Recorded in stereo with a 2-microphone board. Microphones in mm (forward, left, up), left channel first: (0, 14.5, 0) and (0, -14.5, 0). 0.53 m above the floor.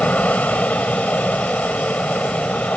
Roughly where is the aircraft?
Left.